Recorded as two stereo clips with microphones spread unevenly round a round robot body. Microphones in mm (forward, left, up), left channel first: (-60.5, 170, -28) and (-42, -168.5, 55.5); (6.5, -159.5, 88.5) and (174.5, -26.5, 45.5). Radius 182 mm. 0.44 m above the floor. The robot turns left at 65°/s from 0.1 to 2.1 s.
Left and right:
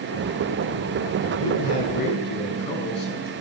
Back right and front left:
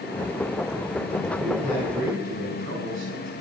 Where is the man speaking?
115° left, 6 m; by 3.3 s 65° left, 6 m.